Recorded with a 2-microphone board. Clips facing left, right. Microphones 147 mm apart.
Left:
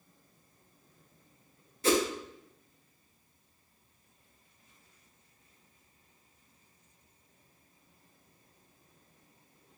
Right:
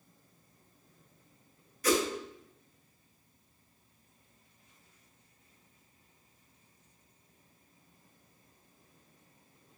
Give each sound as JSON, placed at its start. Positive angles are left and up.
{"t": 1.8, "sound": "a whoosh", "side_deg": 25, "distance_m": 0.6}